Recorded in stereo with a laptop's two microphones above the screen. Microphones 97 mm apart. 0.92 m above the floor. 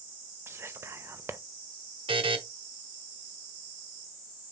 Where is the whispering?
25° right (ahead or behind), 0.5 m.